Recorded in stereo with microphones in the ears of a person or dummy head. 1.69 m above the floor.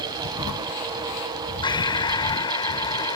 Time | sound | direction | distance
1.6 | breathing | 25° left (ahead or behind) | ?